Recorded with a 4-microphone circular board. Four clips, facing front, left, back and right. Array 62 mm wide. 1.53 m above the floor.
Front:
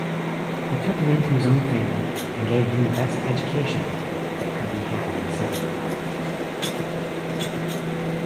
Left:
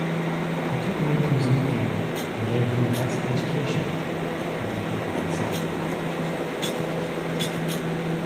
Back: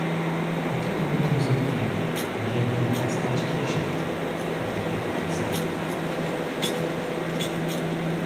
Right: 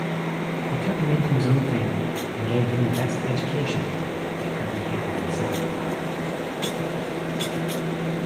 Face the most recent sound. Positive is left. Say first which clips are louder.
# right 3 dB, front 4 dB
turn(degrees=-15)